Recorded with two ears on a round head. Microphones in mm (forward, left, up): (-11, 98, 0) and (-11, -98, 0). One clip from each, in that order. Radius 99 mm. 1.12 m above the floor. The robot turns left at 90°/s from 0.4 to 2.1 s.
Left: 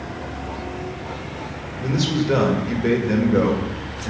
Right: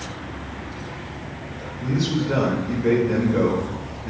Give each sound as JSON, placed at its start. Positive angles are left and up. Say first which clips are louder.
{"t": 1.8, "sound": "a man speaking", "louder": "left 2 dB", "side_deg": 80, "distance_m": 1.7}